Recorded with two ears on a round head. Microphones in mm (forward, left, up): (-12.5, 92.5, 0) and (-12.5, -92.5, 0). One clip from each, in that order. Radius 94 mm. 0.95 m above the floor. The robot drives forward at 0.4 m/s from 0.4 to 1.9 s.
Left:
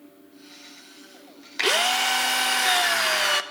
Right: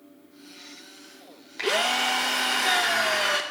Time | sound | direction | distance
1.6 | a drill | 40° left (ahead or behind) | 0.7 m